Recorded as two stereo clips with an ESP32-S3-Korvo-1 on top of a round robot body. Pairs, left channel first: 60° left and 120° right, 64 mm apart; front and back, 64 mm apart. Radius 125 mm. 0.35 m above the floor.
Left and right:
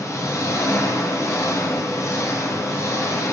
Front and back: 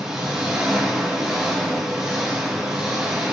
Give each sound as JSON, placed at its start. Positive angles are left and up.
{"t": 0.0, "sound": "an engine running", "azimuth_deg": 100, "distance_m": 1.2}